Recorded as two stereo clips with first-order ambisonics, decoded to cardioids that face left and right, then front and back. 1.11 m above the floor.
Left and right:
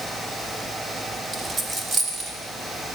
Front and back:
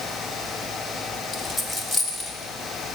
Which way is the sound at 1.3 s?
45° right.